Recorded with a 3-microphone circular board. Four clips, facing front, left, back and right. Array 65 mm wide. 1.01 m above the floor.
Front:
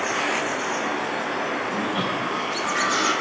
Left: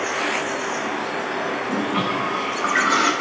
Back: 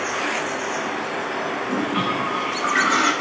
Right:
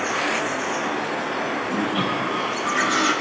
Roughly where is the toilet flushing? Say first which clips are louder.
Left 1 dB, back 2 dB; behind left.